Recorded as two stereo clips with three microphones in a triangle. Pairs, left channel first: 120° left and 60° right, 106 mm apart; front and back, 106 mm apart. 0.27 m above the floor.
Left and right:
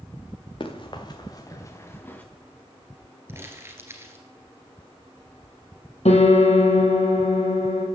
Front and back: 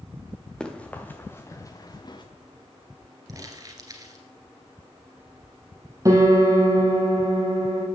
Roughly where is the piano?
Behind left.